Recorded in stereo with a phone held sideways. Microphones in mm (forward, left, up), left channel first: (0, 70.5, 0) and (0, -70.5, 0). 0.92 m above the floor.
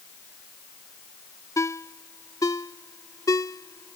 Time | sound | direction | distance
1.6 | a ringtone | 25° left (ahead or behind) | ?